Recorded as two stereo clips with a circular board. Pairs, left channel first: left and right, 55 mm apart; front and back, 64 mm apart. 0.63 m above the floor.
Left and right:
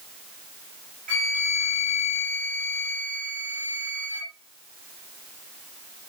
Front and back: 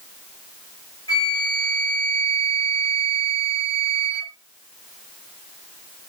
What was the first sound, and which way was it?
A flute, 25° left.